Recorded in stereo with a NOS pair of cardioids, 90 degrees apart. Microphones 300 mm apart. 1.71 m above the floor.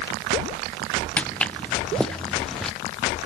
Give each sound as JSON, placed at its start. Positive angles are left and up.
{"t": 1.2, "sound": "footsteps", "azimuth_deg": 5}